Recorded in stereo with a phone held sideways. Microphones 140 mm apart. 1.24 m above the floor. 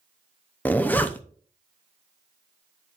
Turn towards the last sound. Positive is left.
turn(degrees=10)  # may be behind; listen again after turning